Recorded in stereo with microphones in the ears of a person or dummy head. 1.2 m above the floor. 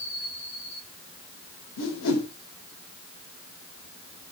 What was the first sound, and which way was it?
A whoosh, 80° left.